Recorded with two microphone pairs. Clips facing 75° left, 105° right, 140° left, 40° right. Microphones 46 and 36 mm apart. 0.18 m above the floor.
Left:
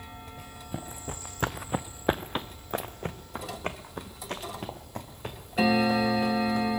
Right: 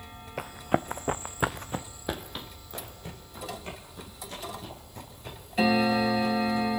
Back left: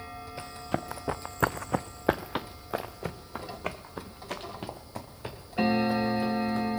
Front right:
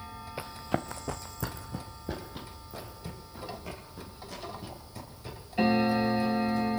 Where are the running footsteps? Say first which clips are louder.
Right 14 dB, front right 1 dB; 115° right, 1.0 m; by 6.7 s 105° left, 5 m.